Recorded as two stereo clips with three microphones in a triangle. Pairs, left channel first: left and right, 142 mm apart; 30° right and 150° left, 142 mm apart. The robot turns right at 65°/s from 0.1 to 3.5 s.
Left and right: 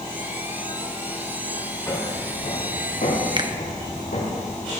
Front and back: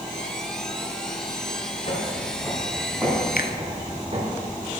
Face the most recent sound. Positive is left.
turn(degrees=-25)